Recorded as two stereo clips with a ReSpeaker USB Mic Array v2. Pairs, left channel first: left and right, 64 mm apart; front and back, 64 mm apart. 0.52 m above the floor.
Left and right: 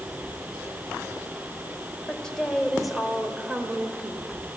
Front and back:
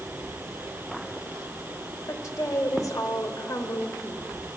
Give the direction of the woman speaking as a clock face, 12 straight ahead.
11 o'clock.